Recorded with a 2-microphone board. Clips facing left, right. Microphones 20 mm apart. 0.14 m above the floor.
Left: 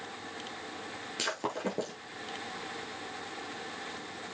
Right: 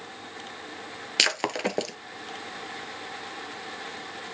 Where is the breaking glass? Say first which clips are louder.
Right 10 dB; 65° right (ahead or behind), 1.0 m.